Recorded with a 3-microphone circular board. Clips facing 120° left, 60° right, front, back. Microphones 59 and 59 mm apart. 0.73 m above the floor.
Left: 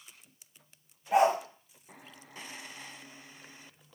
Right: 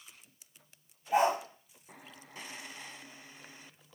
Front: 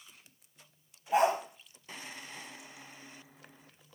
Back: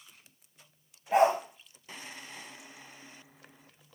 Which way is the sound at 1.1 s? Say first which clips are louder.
Left 3 dB, back 3 dB; 150° left.